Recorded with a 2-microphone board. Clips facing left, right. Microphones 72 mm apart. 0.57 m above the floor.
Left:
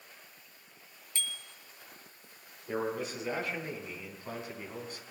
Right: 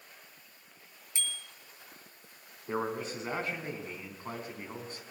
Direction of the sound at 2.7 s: 35° right (ahead or behind).